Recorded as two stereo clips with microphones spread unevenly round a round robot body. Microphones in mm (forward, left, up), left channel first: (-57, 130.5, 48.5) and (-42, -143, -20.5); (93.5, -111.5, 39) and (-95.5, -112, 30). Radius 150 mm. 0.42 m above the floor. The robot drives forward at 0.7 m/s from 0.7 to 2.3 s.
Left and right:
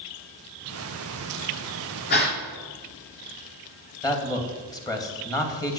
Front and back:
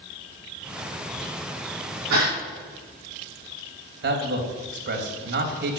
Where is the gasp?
145° left, 3.5 m.